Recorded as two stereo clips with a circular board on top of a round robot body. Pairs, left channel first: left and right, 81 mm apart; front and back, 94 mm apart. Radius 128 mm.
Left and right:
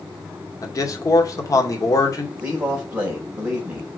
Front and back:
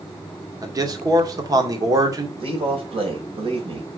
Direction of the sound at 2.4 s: 165° right.